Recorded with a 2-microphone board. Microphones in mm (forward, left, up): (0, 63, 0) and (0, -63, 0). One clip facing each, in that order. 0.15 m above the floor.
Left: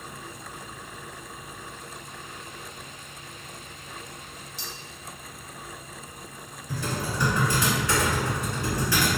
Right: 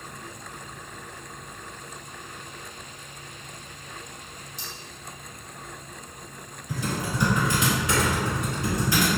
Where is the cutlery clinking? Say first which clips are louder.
Left 1 dB; 45° right (ahead or behind), 1.0 m.